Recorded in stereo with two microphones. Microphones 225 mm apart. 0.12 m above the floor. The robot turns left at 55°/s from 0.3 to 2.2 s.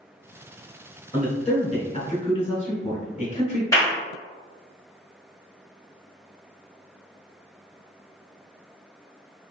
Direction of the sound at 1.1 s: 20° left (ahead or behind).